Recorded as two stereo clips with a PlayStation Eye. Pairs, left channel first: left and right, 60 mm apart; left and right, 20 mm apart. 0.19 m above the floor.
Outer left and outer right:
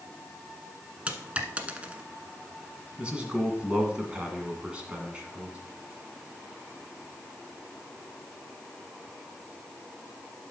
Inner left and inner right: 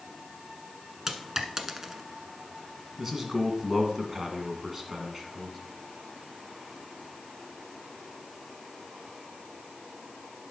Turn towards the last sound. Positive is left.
turn(degrees=-20)  # may be behind; listen again after turning